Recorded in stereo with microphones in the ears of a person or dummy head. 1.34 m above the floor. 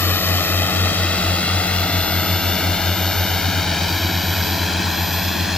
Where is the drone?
10° left (ahead or behind); by 5.6 s 5° right (ahead or behind).